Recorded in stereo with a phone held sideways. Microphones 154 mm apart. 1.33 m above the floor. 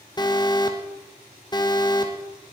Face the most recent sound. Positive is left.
turn(degrees=25)  # may be behind; listen again after turning